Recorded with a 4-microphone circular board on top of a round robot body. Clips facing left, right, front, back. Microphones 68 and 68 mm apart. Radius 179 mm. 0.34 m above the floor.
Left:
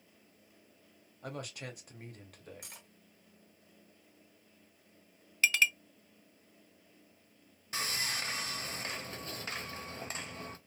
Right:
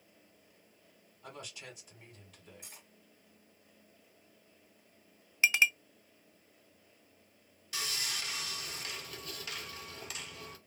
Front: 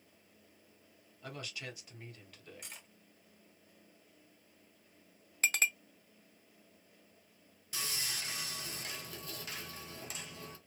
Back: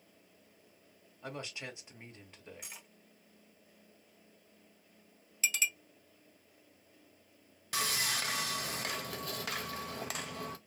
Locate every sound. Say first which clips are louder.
1.2 s a man speaking: left 5 dB, back 2 dB; 115° left, 1.8 m
2.6 s cutlery clinking: left 2 dB, back 1 dB; 95° left, 1.3 m
5.4 s a clink: right 1 dB, front 3 dB; 20° right, 0.6 m
7.7 s sawing: left 3 dB, back 8 dB; 150° left, 0.6 m